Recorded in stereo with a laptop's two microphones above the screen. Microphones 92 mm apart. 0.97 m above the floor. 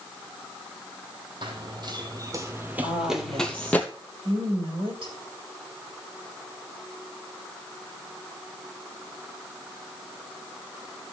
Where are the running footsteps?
55° right (ahead or behind), 1.7 m; by 3.8 s 20° left (ahead or behind), 1.4 m.